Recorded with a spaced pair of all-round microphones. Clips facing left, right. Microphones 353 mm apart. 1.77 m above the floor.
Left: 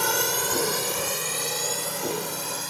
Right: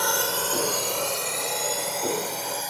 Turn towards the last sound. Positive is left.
turn(degrees=15)  # may be behind; listen again after turning